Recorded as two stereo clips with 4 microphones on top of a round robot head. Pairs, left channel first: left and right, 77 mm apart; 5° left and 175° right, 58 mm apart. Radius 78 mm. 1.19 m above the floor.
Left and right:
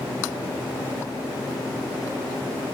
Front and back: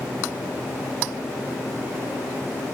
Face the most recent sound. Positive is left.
No sound to turn to.